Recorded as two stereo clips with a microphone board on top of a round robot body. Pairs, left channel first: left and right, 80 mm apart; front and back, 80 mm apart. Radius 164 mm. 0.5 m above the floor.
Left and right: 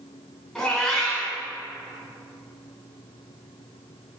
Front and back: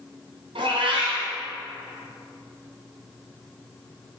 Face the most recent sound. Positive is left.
turn(degrees=175)